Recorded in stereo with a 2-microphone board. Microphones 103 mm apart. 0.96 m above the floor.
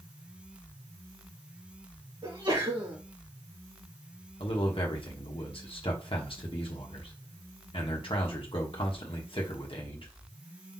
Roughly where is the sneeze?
Right.